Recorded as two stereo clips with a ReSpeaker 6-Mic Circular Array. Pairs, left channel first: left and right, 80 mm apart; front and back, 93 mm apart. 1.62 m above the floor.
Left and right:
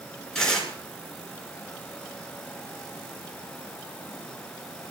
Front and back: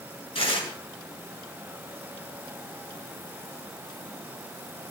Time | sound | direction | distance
0.3 | tearing paper | 5° left | 6 m